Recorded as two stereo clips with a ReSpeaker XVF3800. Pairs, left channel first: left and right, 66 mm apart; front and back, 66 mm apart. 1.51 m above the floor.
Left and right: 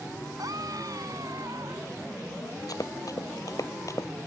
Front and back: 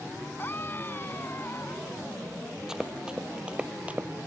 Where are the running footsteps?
100° left; by 4.1 s 115° left.